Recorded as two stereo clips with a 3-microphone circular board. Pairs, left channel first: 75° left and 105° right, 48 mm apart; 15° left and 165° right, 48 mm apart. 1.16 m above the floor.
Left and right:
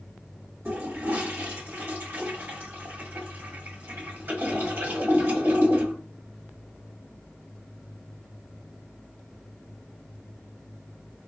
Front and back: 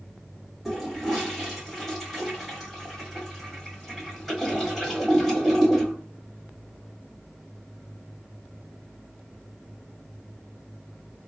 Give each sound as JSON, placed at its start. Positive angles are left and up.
{"t": 0.7, "sound": "a toilet flushing", "azimuth_deg": -75, "distance_m": 1.8}